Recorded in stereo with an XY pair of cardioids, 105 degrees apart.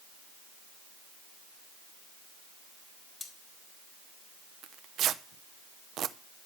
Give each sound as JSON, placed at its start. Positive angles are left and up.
{"t": 3.2, "sound": "cutlery clinking", "azimuth_deg": 35, "distance_m": 2.5}
{"t": 4.6, "sound": "tearing paper", "azimuth_deg": -70, "distance_m": 0.8}